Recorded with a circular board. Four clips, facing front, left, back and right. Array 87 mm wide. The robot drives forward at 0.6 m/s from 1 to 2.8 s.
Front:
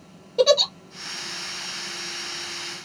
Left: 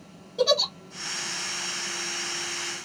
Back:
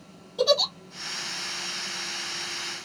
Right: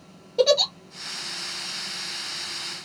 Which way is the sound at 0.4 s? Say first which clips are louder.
Right 4 dB, front 5 dB; 25° right.